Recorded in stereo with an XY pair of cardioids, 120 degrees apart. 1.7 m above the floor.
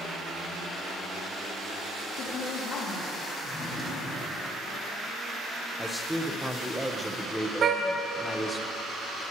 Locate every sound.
2.1 s a woman speaking: 65° left, 3.5 m
3.4 s a drawer: 30° left, 4.5 m
5.8 s a man speaking: straight ahead, 1.7 m
7.6 s a car horn: 45° right, 3.5 m